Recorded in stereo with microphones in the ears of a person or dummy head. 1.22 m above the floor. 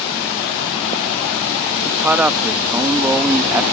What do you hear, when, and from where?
1.9 s a man speaking: 5° right (ahead or behind)